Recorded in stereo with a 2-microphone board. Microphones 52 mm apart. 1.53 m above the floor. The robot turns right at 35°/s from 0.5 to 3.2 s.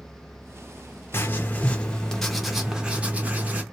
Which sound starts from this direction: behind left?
Writing, at 1.1 s.